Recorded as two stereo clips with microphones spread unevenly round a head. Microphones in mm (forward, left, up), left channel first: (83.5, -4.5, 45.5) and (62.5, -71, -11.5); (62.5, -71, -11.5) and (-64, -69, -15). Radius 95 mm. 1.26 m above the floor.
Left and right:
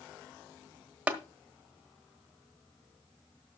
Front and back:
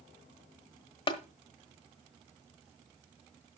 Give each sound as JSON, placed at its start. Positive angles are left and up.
{"t": 1.1, "sound": "tapping", "azimuth_deg": 5, "distance_m": 1.3}